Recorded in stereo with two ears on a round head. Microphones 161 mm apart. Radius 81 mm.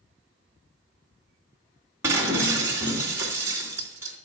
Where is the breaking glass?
15° right (ahead or behind), 3 m.